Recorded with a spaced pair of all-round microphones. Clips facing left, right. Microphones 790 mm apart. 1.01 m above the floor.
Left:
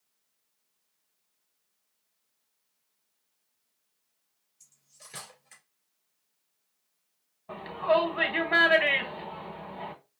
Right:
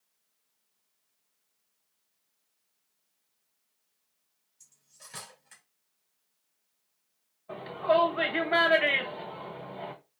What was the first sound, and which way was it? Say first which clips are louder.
Cutlery clinking: left 1 dB; 10° right (ahead or behind).